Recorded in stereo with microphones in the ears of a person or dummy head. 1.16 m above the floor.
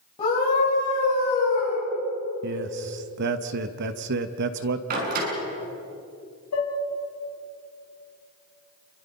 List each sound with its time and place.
0.2 s a scream: 25° left (ahead or behind), 7 m
2.4 s a man speaking: 60° right (ahead or behind), 1.1 m
4.9 s a door slam: 45° right (ahead or behind), 7 m
6.5 s dishes clattering: 80° left, 6 m